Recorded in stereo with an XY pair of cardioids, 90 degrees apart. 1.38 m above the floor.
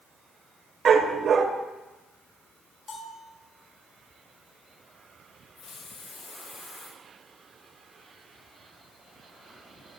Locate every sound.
0.8 s a dog barking: 65° right, 2.5 m
2.9 s a bell: 45° left, 6.5 m
5.6 s a hiss: 65° left, 5.5 m